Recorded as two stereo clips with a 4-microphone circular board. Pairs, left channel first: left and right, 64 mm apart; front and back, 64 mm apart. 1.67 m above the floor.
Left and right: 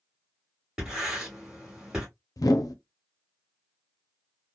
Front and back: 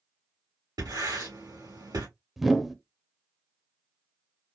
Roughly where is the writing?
Behind.